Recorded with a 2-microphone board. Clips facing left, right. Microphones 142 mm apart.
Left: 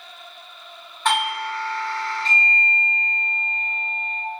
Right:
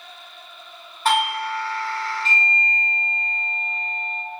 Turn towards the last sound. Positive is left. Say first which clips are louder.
# right 2 dB
turn(degrees=-5)  # may be behind; listen again after turning